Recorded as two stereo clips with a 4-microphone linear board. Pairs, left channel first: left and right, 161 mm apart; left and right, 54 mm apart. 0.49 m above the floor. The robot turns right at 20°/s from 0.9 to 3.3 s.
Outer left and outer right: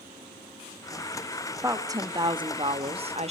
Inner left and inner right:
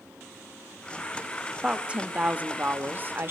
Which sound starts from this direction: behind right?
A woman speaking, at 1.6 s.